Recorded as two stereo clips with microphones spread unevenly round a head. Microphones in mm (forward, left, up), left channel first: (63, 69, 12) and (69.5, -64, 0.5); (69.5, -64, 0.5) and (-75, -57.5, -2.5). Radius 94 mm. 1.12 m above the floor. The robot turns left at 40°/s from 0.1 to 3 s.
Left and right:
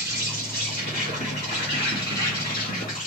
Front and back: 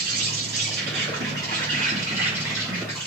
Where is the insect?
175° right, 2.5 m; by 3.1 s 70° left, 2.5 m.